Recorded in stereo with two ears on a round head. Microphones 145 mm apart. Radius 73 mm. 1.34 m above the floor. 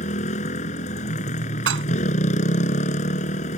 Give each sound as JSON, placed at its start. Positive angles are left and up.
{"t": 0.0, "sound": "a motorcycle", "side_deg": 40}
{"t": 1.7, "sound": "dishes clattering", "side_deg": -85}